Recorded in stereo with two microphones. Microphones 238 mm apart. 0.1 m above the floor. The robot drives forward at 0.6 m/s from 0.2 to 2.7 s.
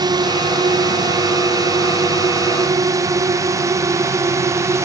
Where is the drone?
15° right (ahead or behind); by 4.9 s 10° right (ahead or behind).